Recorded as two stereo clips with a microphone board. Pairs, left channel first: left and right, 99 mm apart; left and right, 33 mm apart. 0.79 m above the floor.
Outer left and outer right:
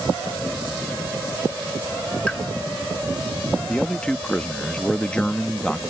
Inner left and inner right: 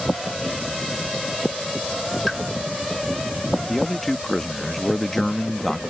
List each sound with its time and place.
2.3 s a pop: 10° left (ahead or behind)
3.7 s a man speaking: 10° left (ahead or behind)